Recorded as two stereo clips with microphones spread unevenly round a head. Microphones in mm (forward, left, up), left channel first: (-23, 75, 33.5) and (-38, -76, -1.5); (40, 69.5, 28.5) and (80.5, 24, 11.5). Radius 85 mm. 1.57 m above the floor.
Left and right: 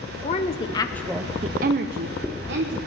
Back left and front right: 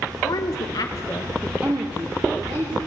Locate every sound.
0.2 s a woman speaking: 125° left, 1.1 m; by 2.8 s 95° right, 1.5 m